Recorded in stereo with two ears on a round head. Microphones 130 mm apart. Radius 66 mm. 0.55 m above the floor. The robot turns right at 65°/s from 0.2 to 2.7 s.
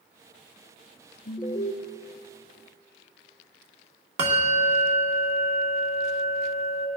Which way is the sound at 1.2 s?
25° left.